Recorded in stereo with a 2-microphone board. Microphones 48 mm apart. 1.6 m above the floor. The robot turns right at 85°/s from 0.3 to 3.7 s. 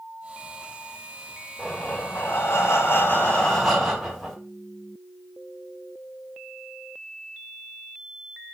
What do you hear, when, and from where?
1.6 s breathing: 5° left, 1.9 m; by 4.4 s 175° right, 1.9 m